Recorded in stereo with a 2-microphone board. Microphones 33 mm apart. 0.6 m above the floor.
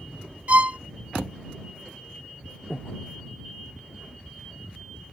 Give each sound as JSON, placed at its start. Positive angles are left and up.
{"t": 0.5, "sound": "a violin", "side_deg": -45}
{"t": 2.7, "sound": "breathing", "side_deg": 25}